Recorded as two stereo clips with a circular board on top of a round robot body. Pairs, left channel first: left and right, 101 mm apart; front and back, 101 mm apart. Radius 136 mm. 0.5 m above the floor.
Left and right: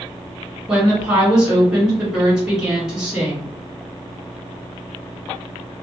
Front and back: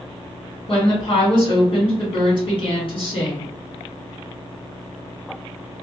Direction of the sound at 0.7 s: 5° right.